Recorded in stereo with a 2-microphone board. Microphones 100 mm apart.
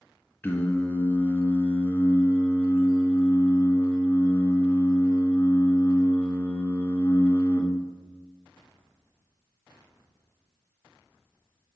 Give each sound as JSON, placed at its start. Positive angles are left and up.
{"t": 0.4, "sound": "singing", "side_deg": 20, "distance_m": 1.0}